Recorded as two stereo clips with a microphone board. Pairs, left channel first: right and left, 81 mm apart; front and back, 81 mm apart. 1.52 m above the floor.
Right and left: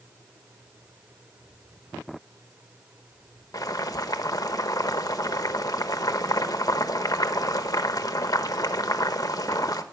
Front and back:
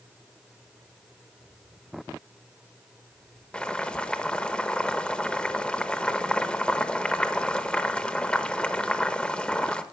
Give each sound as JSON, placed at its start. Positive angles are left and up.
{"t": 3.5, "sound": "boiling", "azimuth_deg": -75, "distance_m": 0.9}